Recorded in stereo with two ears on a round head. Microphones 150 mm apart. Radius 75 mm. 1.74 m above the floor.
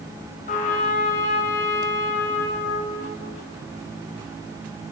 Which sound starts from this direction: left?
A trumpet, at 0.5 s.